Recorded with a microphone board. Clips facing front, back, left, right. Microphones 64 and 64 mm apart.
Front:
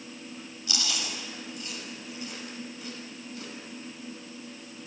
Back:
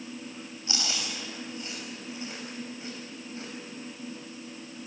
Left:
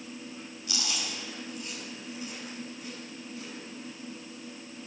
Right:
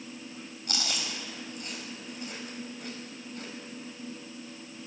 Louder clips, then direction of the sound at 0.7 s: Even, right 1 dB; 120° right.